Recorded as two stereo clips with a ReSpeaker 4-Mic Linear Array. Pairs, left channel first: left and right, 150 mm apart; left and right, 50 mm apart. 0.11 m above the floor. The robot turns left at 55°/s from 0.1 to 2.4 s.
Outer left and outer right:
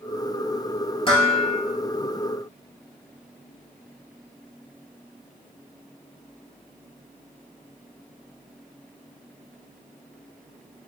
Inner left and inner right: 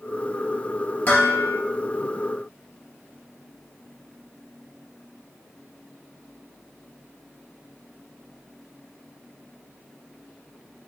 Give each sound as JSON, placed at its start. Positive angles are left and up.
{"t": 1.1, "sound": "dishes clattering", "side_deg": 35, "distance_m": 1.5}